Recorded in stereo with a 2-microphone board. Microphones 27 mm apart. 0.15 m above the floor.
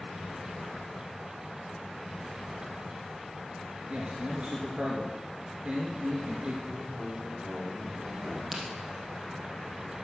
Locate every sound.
3.9 s a man speaking: 50° right (ahead or behind), 1.8 m
6.7 s a man speaking: 80° right, 6 m
8.5 s a crack: 15° right (ahead or behind), 3.5 m